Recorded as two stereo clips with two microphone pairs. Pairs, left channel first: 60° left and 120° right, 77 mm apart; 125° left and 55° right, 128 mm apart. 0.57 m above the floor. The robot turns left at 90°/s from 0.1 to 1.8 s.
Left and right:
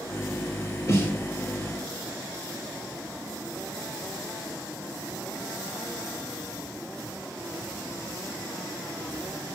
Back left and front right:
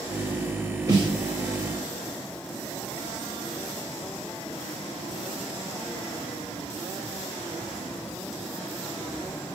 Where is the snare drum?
5° left, 1.9 m; by 1.2 s 25° right, 1.9 m.